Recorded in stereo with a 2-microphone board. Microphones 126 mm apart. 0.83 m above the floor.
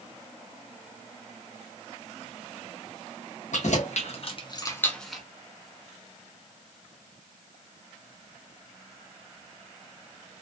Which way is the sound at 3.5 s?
70° left (ahead or behind).